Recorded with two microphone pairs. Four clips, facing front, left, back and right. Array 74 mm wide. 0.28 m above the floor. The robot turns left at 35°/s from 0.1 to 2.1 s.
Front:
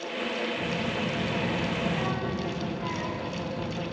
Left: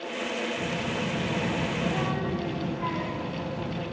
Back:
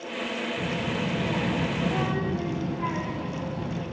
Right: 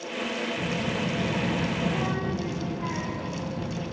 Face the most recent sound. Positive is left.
turn(degrees=165)